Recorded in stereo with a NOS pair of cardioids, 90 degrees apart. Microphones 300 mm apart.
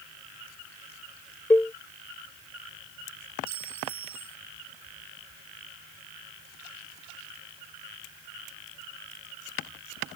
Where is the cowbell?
5° left.